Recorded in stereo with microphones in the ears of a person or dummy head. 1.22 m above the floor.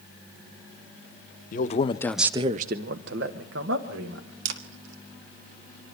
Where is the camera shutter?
75° right (ahead or behind), 1.8 m.